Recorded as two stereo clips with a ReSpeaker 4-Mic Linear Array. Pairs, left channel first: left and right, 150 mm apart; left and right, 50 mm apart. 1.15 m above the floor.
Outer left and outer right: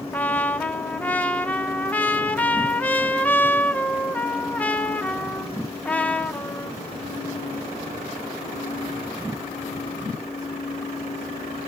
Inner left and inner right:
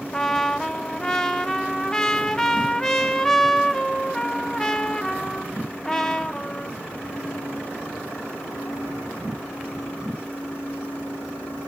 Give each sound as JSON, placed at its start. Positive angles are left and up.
{"t": 0.1, "sound": "a trumpet", "side_deg": 10, "distance_m": 1.1}